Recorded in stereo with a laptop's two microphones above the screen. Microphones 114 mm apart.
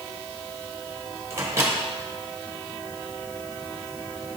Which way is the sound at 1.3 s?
25° right (ahead or behind).